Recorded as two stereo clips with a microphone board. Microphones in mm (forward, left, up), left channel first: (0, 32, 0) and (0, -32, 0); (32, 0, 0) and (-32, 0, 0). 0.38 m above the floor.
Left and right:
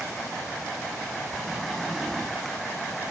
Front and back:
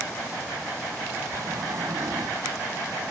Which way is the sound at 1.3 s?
175° left.